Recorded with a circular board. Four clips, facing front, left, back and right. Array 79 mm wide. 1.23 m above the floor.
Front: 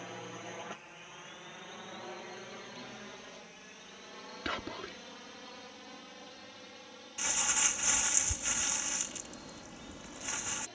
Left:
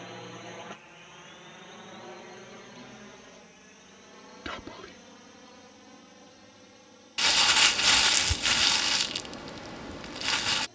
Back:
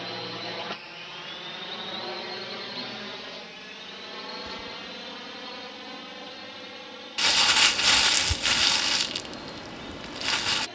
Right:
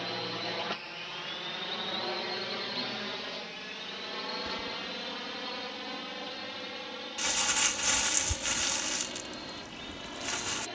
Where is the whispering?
35° left.